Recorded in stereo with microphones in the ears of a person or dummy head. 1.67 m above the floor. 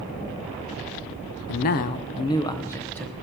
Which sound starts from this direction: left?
A man speaking, at 1.5 s.